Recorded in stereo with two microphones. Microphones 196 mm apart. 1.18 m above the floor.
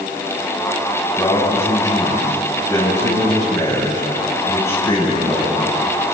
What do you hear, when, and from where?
1.2 s a man speaking: 15° left (ahead or behind), 9.5 m